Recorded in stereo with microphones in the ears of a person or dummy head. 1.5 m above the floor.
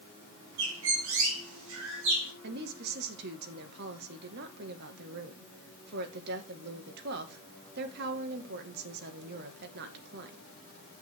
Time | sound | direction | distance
0.6 | a bird | 75° right (ahead or behind) | 4 m
2.4 | a woman speaking | 60° right (ahead or behind) | 1.8 m